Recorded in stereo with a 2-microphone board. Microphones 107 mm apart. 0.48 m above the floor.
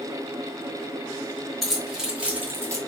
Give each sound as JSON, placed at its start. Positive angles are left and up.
{"t": 1.6, "sound": "keys jangling", "side_deg": 5, "distance_m": 2.5}